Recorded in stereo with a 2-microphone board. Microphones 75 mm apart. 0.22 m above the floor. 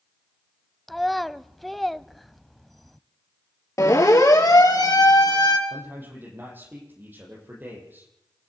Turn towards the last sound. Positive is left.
turn(degrees=-25)  # may be behind; listen again after turning